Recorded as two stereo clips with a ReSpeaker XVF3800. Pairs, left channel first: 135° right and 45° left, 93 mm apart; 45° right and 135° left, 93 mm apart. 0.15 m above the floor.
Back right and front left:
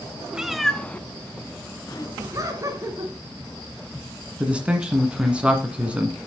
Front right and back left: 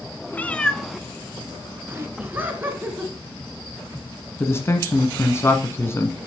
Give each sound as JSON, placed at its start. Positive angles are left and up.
{"t": 0.3, "sound": "a cat meowing", "azimuth_deg": -20, "distance_m": 0.5}
{"t": 2.2, "sound": "laughter", "azimuth_deg": 75, "distance_m": 2.0}
{"t": 4.4, "sound": "a man speaking", "azimuth_deg": -20, "distance_m": 1.4}